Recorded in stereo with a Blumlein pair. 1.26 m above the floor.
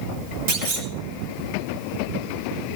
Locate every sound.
0.5 s a clunk: 50° right, 3 m